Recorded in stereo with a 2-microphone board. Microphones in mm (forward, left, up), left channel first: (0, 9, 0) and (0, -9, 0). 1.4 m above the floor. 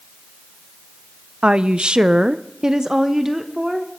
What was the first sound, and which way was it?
A woman speaking, 65° right (ahead or behind).